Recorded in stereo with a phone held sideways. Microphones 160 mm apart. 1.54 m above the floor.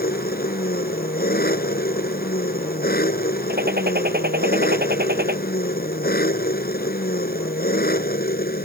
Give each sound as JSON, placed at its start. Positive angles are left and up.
{"t": 0.0, "sound": "an engine running", "side_deg": 70}
{"t": 3.5, "sound": "a gunshot", "side_deg": -80}